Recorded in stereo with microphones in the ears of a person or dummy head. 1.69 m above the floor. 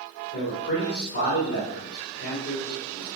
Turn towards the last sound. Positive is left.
turn(degrees=60)  # may be behind; listen again after turning